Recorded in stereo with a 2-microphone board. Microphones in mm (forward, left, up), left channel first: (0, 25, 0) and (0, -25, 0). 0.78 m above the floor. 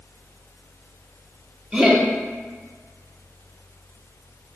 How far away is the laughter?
About 0.9 m.